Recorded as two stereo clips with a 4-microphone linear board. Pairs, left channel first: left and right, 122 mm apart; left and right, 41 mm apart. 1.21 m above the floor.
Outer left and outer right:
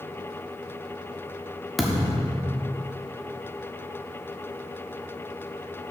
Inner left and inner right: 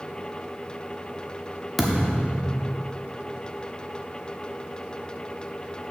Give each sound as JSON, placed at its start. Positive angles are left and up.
{"t": 1.8, "sound": "a thud", "side_deg": 0, "distance_m": 1.2}